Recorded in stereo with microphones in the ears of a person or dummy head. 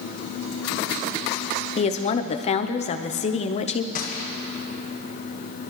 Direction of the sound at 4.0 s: 45° left (ahead or behind).